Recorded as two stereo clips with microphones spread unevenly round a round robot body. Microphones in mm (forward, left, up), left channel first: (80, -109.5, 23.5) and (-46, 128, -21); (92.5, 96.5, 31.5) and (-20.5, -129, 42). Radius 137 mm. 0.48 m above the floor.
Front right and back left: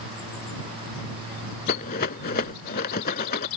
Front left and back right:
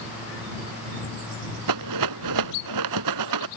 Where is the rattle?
120° right.